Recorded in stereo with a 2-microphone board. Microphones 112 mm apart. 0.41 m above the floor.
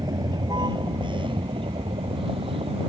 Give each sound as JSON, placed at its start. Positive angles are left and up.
{"t": 0.0, "sound": "a vehicle", "side_deg": -35}